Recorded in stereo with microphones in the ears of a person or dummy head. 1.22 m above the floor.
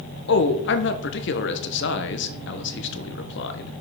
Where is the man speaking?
55° left (ahead or behind), 0.9 m.